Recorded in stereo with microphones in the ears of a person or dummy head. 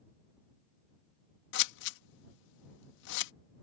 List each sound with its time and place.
1.5 s scissors: 70° left (ahead or behind)